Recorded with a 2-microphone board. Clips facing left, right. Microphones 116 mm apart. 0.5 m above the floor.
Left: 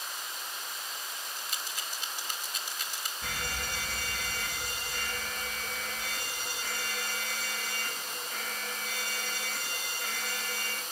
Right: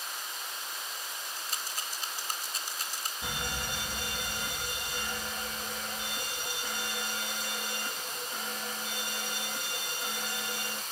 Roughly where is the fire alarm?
Centre.